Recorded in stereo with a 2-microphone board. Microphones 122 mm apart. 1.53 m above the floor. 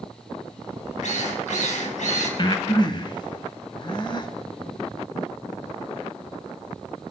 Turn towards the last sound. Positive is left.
turn(degrees=40)  # may be behind; listen again after turning